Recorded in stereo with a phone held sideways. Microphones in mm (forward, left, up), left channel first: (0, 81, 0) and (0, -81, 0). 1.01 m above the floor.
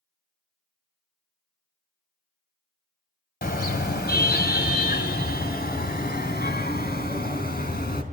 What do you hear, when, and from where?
3.4 s a car horn: 70° left (ahead or behind), 2 m